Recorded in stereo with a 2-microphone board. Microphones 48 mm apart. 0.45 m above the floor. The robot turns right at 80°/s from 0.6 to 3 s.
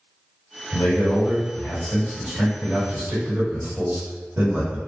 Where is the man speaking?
55° left, 1.4 m; by 4.8 s 125° right, 1.4 m.